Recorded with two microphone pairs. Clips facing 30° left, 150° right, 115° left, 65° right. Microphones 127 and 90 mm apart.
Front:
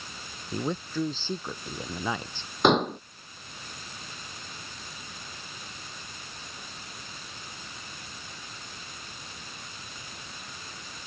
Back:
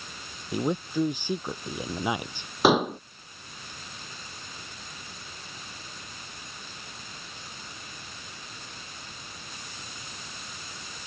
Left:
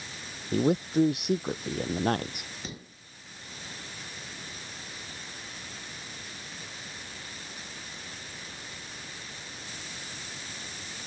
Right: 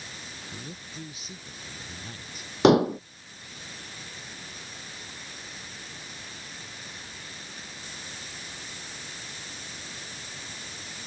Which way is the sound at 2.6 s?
65° right.